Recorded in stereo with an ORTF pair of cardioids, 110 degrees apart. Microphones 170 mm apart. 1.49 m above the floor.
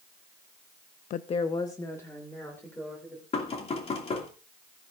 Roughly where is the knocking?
Ahead left.